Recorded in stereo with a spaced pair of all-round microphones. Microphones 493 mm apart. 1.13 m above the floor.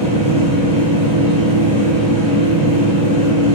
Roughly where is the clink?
No clink in this recording.